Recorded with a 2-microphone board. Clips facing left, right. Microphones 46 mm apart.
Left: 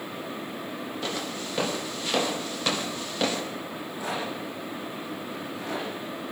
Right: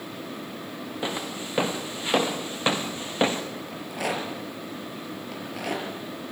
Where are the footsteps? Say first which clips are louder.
Right 3 dB; 20° right (ahead or behind), 4.5 m; by 3.4 s 30° right (ahead or behind), 3 m.